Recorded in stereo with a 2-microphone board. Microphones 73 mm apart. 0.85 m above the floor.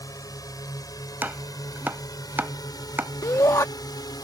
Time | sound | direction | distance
0.0 | a drone | 55° left (ahead or behind) | ?
1.2 | chopping | 25° right (ahead or behind) | ?
3.2 | a shout | 55° left (ahead or behind) | ?